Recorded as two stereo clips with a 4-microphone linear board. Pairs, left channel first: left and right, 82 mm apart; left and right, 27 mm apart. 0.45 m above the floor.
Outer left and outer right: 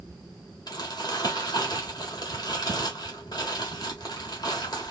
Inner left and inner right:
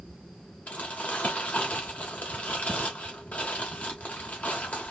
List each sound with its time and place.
0.7 s crumpling: 55° left (ahead or behind), 1.3 m